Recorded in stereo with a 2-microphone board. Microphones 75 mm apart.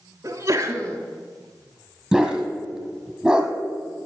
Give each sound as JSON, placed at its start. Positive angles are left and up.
{"t": 0.2, "sound": "a sneeze", "side_deg": -40, "distance_m": 2.0}
{"t": 2.1, "sound": "a dog barking", "side_deg": -5, "distance_m": 2.0}